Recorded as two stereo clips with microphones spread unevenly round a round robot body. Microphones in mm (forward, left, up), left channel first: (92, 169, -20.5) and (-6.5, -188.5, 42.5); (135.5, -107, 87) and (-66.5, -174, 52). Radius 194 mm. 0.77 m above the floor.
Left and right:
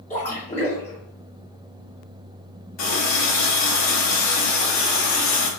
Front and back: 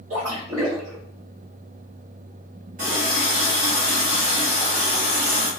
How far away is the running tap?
About 0.8 m.